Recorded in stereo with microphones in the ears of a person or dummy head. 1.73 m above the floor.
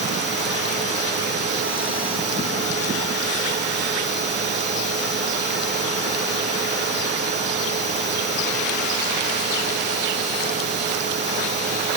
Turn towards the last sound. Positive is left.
No sound to turn to.